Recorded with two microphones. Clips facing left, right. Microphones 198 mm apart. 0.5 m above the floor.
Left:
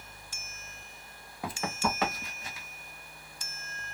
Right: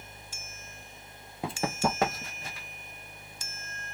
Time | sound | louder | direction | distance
1.4 | running footsteps | right 3 dB | 25° right (ahead or behind) | 0.6 m